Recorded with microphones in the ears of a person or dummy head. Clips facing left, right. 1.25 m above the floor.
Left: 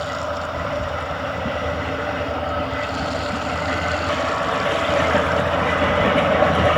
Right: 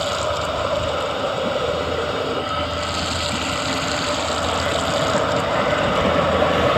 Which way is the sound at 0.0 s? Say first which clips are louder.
Right 3 dB; 50° right (ahead or behind).